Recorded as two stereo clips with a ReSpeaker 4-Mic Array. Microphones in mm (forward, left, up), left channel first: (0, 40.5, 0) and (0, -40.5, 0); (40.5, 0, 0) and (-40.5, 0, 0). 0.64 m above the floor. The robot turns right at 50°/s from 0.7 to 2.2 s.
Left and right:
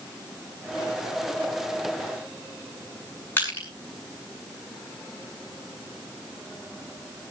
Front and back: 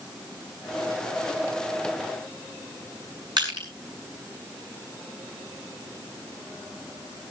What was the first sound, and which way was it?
Crushing, 155° left.